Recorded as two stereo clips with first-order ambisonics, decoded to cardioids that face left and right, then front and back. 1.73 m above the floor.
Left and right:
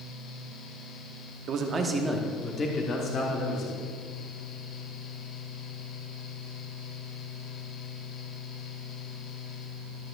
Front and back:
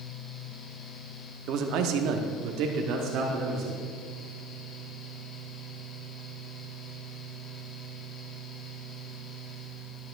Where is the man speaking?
135° right, 0.9 m; by 3.8 s 135° left, 1.9 m.